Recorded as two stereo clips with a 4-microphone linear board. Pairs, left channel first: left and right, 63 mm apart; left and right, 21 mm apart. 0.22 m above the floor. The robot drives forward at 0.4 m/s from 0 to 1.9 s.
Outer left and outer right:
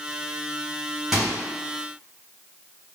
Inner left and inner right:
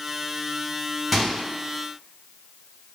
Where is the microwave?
10° right (ahead or behind), 1.3 m.